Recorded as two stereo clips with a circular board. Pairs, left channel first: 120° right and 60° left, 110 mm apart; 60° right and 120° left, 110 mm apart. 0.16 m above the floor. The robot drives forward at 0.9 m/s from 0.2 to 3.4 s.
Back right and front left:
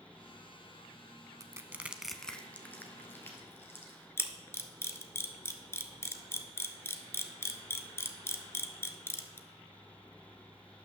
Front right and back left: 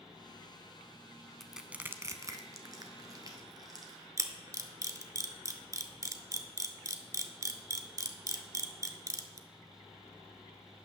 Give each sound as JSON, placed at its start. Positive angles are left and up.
{"t": 1.4, "sound": "crushing", "azimuth_deg": 25, "distance_m": 0.6}
{"t": 4.2, "sound": "a camera shutter", "azimuth_deg": 175, "distance_m": 0.7}